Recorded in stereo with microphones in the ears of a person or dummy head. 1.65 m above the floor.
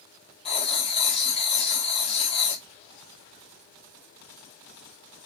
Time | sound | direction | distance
0.5 | writing | 35° left (ahead or behind) | 0.9 m